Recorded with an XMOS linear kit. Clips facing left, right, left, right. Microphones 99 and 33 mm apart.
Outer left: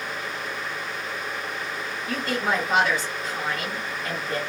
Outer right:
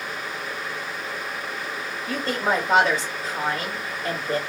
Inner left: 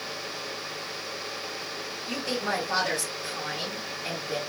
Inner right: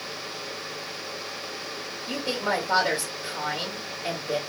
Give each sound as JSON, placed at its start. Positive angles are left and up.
{"t": 2.1, "sound": "a woman speaking", "side_deg": -40, "distance_m": 1.7}